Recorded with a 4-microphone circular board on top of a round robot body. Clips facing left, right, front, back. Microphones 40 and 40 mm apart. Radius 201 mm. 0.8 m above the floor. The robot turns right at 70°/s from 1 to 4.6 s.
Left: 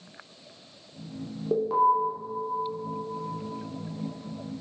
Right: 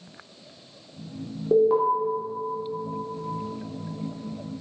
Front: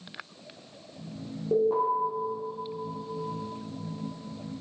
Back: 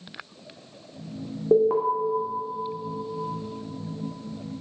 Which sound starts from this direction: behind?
An alarm, at 1.5 s.